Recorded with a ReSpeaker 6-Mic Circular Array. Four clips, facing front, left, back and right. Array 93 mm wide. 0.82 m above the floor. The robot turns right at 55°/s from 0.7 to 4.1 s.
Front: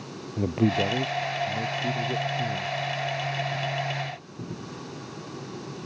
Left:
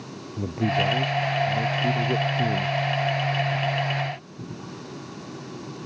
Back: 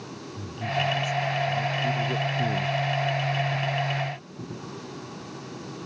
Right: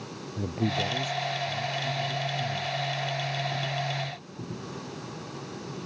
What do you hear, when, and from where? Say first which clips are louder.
0.4 s a man speaking: left 5 dB, front 6 dB; 10° left; by 2.7 s 120° left